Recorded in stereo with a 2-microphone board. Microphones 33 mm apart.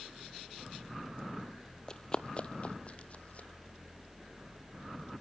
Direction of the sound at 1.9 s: 25° left (ahead or behind).